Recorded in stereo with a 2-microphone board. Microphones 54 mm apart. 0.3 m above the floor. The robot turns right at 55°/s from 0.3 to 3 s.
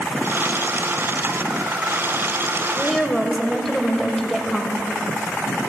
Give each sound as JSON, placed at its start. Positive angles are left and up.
{"t": 2.8, "sound": "a woman speaking", "side_deg": 10, "distance_m": 1.1}